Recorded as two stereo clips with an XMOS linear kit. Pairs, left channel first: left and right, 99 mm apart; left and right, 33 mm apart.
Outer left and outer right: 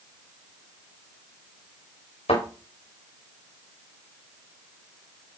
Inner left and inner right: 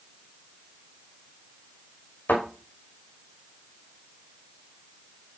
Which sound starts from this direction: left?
A thud, at 2.3 s.